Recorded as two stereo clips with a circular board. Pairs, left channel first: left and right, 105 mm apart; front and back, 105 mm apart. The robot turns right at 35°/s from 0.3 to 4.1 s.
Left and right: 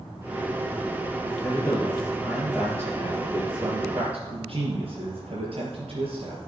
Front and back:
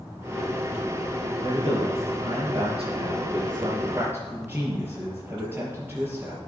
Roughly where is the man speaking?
Behind left.